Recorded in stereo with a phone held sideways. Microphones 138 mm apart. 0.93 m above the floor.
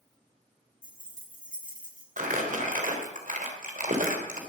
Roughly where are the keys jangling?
Left.